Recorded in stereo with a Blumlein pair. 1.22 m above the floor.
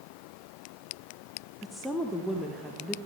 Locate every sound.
1.6 s a woman speaking: straight ahead, 1.0 m